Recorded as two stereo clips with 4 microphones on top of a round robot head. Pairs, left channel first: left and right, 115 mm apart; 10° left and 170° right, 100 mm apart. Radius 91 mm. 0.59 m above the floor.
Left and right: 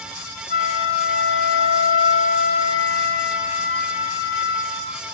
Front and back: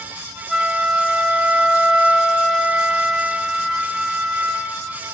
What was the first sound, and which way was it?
A flute, 105° left.